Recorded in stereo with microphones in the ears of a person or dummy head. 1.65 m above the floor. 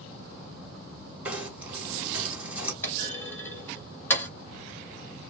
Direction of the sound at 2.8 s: 15° left (ahead or behind).